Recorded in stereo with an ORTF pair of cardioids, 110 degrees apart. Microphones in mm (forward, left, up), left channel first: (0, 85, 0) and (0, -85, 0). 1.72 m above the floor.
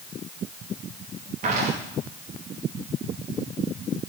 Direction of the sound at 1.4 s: 50° right.